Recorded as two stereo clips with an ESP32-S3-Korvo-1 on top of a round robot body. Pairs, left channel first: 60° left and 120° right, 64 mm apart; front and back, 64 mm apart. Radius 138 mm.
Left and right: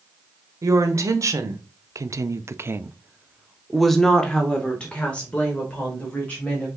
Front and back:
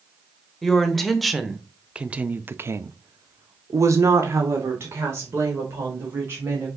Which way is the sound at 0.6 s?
85° right.